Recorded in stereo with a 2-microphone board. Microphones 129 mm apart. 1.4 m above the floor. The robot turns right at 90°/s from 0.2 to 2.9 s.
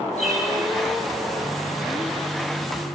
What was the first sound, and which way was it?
A bird, 65° left (ahead or behind).